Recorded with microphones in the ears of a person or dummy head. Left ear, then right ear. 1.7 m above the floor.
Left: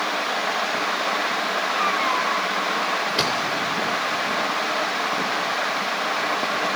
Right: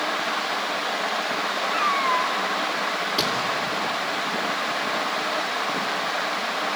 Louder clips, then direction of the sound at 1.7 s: Right 1 dB; 45° right (ahead or behind).